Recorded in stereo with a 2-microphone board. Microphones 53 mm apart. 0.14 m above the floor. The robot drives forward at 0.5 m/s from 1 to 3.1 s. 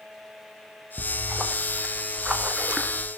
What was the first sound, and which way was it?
A splash, 15° right (ahead or behind).